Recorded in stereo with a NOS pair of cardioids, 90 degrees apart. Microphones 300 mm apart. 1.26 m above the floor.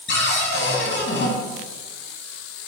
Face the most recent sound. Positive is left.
turn(degrees=40)